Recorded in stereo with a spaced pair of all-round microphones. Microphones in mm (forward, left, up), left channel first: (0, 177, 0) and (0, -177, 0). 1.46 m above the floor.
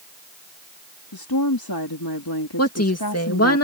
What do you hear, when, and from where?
1.1 s a woman speaking: 80° left
2.6 s a woman speaking: 45° left (ahead or behind)